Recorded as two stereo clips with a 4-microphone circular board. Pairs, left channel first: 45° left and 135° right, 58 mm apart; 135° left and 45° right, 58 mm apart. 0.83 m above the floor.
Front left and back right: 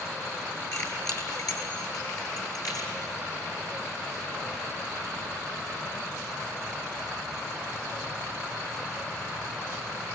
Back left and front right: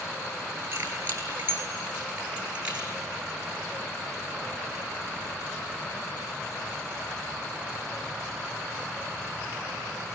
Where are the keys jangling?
10° left, 8.5 m; by 2.9 s 30° left, 9 m.